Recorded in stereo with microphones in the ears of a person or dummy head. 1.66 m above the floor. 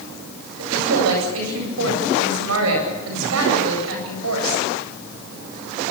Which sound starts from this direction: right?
A woman speaking, at 0.6 s.